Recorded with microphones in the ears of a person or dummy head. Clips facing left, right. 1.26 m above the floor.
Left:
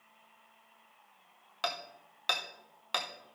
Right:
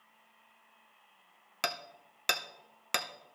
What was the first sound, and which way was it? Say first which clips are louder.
Hammering: left 1 dB; 35° right (ahead or behind).